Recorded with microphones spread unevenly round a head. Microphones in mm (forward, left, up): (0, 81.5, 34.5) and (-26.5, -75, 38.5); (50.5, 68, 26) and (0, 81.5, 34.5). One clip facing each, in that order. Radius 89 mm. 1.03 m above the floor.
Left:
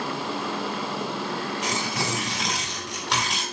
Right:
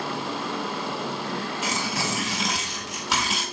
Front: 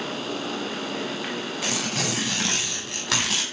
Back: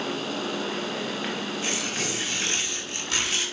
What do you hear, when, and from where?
1.6 s tearing paper: 15° right, 5 m